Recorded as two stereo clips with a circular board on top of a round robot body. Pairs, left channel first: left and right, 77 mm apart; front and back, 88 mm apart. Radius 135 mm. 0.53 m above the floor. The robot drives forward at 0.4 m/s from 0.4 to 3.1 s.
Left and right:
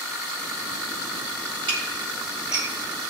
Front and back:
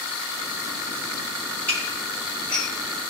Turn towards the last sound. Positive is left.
turn(degrees=-85)